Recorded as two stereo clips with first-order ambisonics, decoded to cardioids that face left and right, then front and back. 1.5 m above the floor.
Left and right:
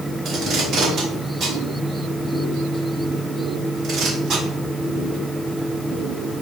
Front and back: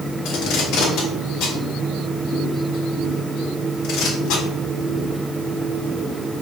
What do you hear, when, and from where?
0.2 s tape being pulled: 40° right, 3.5 m